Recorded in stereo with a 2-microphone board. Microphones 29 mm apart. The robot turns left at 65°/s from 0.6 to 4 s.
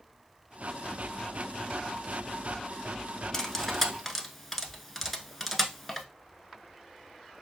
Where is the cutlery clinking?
10° left (ahead or behind), 0.8 m; by 6.0 s 5° right (ahead or behind), 0.8 m.